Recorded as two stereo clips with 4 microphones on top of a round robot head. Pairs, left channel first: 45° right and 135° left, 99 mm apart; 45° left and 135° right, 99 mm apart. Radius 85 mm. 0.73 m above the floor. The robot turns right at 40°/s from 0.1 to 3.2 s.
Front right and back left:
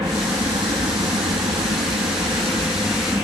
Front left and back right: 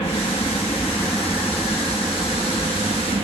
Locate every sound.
0.0 s an aircraft: 80° left; by 3.2 s 155° right